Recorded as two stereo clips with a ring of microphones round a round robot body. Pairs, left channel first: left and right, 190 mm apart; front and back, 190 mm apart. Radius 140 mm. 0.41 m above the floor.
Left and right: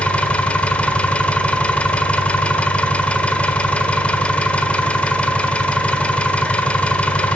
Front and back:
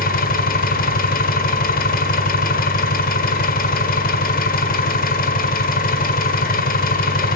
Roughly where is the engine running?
Ahead.